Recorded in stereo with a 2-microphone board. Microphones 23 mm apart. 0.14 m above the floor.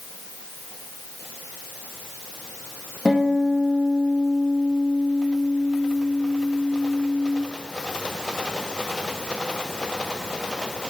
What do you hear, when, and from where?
3.0 s a guitar: 50° left (ahead or behind), 3 m